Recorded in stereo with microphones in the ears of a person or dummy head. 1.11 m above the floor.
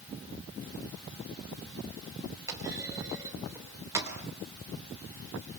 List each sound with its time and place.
2.5 s a clunk: 20° right (ahead or behind), 3.5 m